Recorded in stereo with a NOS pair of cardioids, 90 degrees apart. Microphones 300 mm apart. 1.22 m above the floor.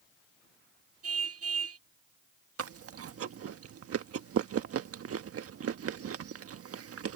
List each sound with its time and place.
1.0 s a car horn: 55° right
2.6 s chewing: 50° right